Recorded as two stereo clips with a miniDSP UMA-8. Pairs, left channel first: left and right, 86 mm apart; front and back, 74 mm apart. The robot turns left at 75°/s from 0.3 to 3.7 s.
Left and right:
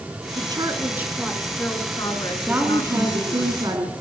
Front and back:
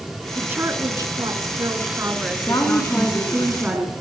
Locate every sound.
0.3 s a woman speaking: 105° right, 3 m; by 3.5 s 20° left, 3 m
2.5 s a woman speaking: 20° right, 3 m; by 3.9 s 115° right, 3 m